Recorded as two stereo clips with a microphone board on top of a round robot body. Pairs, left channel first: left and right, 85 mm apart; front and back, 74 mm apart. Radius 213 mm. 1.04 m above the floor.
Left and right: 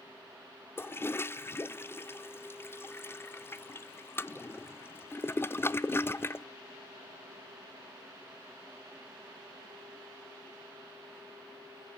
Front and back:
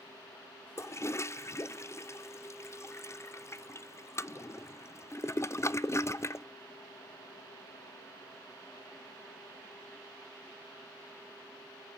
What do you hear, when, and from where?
0.8 s a toilet flushing: 35° left, 0.6 m